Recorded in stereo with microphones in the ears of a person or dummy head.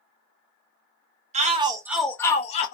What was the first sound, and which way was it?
A shout, 35° right (ahead or behind).